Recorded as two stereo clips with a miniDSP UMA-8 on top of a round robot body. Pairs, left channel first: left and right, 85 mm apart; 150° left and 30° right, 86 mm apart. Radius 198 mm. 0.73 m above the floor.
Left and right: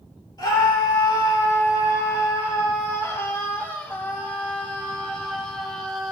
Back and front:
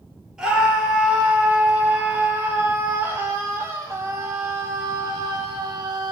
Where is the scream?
50° left, 4.5 m; by 6.1 s straight ahead, 3.5 m.